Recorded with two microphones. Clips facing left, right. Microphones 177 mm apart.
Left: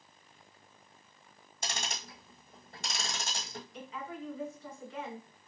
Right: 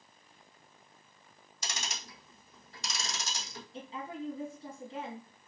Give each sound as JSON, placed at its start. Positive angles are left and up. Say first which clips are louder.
{"t": 1.6, "sound": "ticking", "louder": "left 3 dB", "side_deg": 60, "distance_m": 1.0}
{"t": 3.7, "sound": "a woman speaking", "louder": "right 3 dB", "side_deg": -30, "distance_m": 1.4}